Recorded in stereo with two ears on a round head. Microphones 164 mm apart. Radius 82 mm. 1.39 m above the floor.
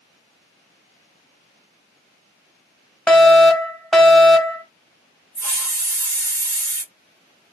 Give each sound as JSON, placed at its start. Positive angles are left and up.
{"t": 3.1, "sound": "a fire alarm", "side_deg": 5, "distance_m": 1.3}
{"t": 5.3, "sound": "a hiss", "side_deg": -15, "distance_m": 2.5}